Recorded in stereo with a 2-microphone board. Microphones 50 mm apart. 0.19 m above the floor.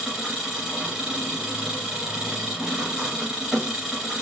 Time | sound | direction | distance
0.0 | an engine running | 10° right (ahead or behind) | 2.5 m